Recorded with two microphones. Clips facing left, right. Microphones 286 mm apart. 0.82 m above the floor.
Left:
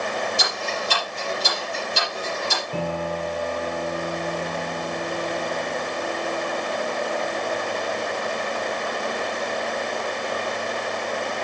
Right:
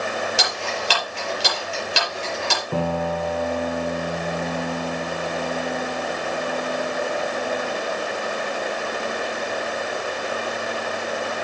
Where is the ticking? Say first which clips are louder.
Right 1 dB; 80° right, 6 m.